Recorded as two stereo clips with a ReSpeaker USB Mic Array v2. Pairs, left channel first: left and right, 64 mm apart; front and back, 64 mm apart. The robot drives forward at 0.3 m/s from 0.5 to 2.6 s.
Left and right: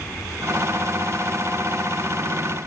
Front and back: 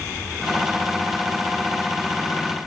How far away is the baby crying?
I don't hear a baby crying.